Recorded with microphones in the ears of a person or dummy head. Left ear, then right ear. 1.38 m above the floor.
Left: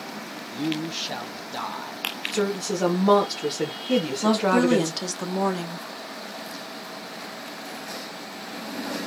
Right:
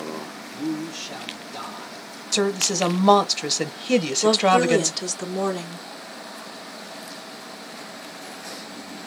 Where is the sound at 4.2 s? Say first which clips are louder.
Right 4 dB; centre (ahead or behind), 0.6 m.